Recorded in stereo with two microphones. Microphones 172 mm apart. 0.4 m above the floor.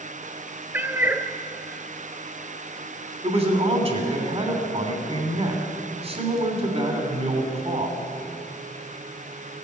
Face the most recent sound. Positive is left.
turn(degrees=-35)  # may be behind; listen again after turning